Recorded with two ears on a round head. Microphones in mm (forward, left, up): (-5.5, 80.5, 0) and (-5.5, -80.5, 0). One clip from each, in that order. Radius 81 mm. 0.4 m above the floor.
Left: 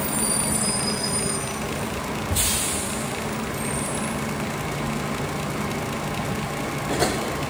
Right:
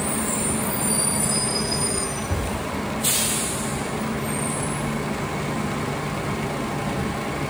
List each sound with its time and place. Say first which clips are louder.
2.3 s a thud: left 3 dB; 55° left (ahead or behind), 8 m